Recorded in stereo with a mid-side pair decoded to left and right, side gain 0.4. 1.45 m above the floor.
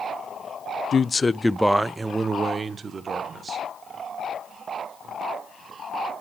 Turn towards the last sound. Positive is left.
turn(degrees=-55)